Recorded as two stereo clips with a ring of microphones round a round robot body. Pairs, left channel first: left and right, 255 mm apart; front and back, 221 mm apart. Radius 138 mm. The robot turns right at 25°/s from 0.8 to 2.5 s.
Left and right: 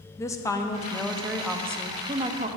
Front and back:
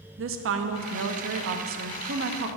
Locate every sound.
0.2 s a woman speaking: 170° left, 1.0 m; by 2.5 s 150° right, 1.0 m